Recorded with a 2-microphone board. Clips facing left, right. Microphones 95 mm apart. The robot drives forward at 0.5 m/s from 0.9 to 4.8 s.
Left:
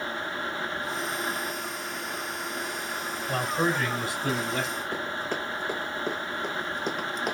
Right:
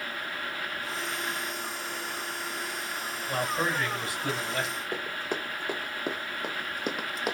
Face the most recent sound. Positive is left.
turn(degrees=-5)  # may be behind; listen again after turning